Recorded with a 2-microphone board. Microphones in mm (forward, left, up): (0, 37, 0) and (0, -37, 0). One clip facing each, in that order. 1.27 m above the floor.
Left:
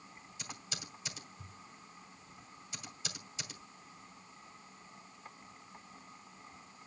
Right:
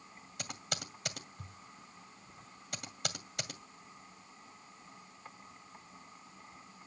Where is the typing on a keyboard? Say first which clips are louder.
Right 5 dB; 65° right (ahead or behind), 2.5 m.